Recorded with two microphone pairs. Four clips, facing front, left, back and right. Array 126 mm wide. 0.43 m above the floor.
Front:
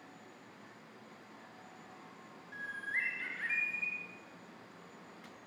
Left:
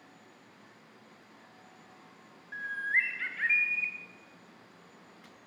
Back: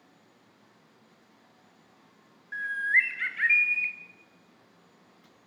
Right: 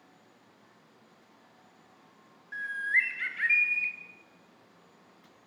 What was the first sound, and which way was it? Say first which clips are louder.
A bird: right 2 dB, back 13 dB; 160° left.